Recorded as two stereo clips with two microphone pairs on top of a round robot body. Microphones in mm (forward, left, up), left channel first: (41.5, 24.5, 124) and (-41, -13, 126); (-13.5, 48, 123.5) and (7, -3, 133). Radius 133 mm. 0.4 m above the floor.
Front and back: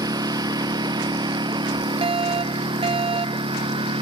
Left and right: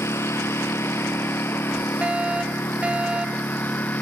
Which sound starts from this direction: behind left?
A lawn mower, at 0.0 s.